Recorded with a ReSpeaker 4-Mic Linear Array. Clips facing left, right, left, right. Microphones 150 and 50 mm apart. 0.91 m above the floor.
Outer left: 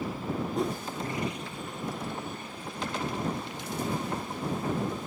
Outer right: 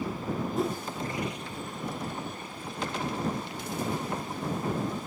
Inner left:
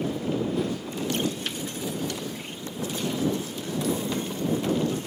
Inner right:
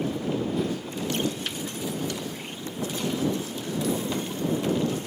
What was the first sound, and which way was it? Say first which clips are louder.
A whoosh: outer right 1 dB, even; centre (ahead or behind).